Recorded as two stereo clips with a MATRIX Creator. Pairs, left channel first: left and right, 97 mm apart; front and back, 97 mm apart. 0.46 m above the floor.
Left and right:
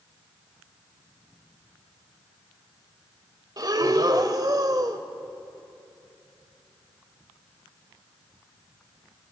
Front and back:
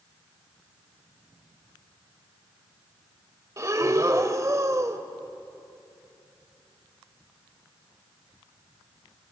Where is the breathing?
130° right, 1.4 m.